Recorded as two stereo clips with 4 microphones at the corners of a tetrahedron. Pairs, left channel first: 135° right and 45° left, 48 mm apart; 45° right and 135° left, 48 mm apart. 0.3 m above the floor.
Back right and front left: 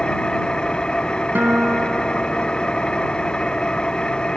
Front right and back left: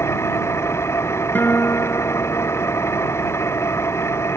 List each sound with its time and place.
0.0 s an engine running: 65° right
1.4 s a guitar: straight ahead